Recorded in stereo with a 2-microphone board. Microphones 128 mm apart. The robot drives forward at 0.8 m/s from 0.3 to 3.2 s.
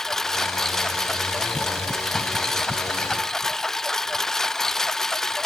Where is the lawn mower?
5° left (ahead or behind).